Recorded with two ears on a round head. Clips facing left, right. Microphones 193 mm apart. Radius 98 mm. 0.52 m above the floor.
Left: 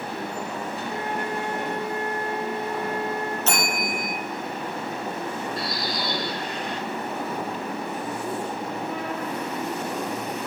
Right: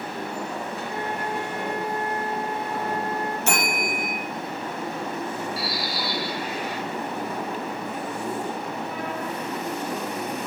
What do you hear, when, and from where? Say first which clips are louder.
0.9 s a flute: left 1 dB; 55° left (ahead or behind), 3 m
3.5 s a bell: right 1 dB; 10° right (ahead or behind), 3 m
5.6 s a bird: even; 5° right (ahead or behind), 1.1 m